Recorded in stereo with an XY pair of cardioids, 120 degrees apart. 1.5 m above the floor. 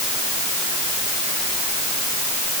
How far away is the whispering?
I don't hear whispering.